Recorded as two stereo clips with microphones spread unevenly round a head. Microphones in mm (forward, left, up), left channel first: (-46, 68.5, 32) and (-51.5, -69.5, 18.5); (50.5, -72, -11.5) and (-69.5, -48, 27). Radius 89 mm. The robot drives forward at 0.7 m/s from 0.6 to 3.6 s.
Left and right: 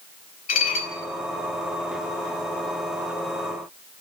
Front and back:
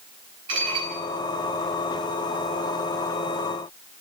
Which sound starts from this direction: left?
Dishes clattering, at 0.5 s.